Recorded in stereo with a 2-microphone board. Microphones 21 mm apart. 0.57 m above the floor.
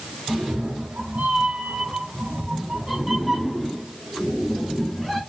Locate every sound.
0.3 s a cat meowing: 70° right (ahead or behind), 1.1 m; by 5.2 s 10° left (ahead or behind), 2 m